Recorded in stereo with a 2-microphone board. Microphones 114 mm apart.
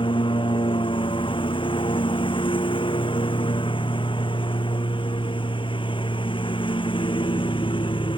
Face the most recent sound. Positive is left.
turn(degrees=45)  # may be behind; listen again after turning